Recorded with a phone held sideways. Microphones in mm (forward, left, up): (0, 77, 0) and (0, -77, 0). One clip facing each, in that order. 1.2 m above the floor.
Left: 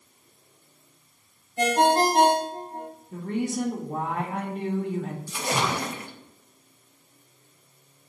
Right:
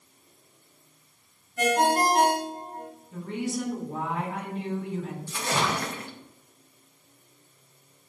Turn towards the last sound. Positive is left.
turn(degrees=15)  # may be behind; listen again after turning